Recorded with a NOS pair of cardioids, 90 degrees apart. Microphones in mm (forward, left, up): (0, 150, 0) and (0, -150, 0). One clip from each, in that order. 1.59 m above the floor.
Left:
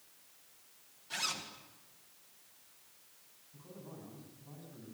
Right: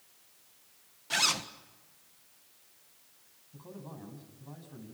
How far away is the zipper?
About 1.8 m.